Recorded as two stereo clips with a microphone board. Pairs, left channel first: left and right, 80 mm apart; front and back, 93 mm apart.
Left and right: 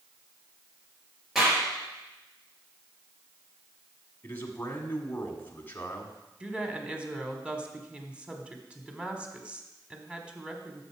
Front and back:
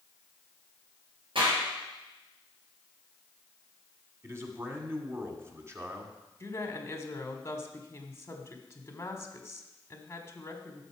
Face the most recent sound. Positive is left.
turn(degrees=-25)